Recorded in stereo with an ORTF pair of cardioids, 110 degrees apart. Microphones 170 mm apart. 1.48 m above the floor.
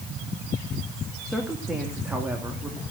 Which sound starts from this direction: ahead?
A woman speaking, at 1.3 s.